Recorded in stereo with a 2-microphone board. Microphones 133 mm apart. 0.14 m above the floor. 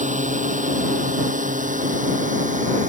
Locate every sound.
0.0 s a drone: 70° right (ahead or behind); by 2.9 s 65° right (ahead or behind)